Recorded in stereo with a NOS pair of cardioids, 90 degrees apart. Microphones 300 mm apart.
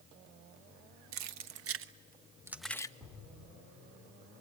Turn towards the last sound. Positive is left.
turn(degrees=0)